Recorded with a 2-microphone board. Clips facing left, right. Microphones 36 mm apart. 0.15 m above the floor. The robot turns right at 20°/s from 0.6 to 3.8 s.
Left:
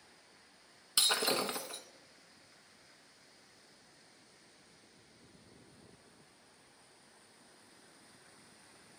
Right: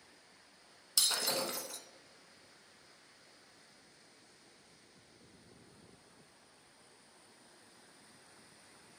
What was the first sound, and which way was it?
Breaking glass, 30° left (ahead or behind).